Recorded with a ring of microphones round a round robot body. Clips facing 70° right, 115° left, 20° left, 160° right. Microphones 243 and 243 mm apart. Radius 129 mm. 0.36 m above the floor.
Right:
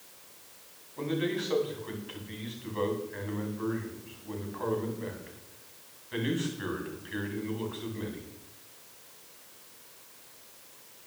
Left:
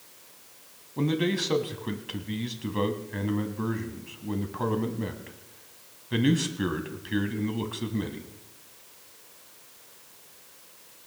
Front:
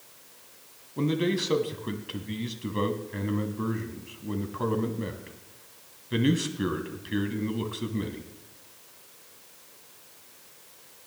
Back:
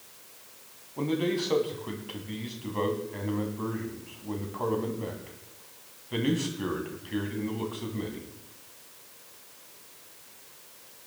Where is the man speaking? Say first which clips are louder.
Left 4 dB, front 1 dB; 85° left, 2.5 m.